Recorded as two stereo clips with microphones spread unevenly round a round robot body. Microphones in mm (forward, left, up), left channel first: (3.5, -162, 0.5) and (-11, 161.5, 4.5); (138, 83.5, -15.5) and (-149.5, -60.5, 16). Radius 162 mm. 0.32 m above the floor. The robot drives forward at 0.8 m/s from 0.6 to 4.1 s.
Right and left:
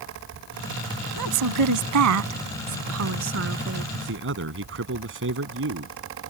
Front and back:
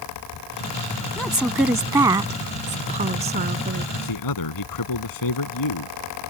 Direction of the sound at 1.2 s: 110° left.